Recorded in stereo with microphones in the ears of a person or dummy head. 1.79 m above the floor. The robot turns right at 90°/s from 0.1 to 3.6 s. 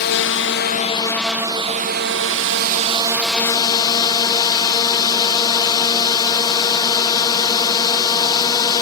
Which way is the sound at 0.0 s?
70° left.